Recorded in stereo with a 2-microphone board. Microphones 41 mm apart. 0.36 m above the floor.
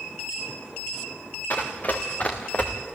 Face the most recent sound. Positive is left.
turn(degrees=35)  # may be behind; listen again after turning